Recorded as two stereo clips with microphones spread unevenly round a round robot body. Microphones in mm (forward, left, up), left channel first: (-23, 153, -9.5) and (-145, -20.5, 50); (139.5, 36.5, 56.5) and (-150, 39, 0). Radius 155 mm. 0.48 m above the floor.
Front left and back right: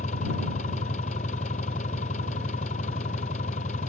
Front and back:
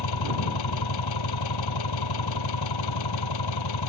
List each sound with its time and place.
0.0 s an engine running: 15° right